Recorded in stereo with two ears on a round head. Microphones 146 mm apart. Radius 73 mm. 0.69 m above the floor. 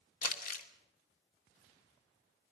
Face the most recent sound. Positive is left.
turn(degrees=55)  # may be behind; listen again after turning